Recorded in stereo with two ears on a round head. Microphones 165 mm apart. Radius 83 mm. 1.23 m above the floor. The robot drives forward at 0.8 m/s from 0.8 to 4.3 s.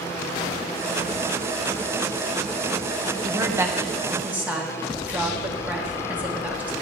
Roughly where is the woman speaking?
Right.